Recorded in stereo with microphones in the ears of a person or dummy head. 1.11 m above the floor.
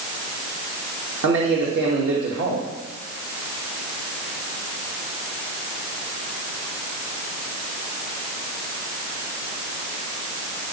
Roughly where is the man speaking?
Right.